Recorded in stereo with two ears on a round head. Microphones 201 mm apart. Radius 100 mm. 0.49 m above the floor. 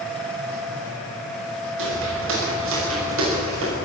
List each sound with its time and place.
1.8 s footsteps: 65° right (ahead or behind), 9 m; by 3.8 s 75° right (ahead or behind), 9 m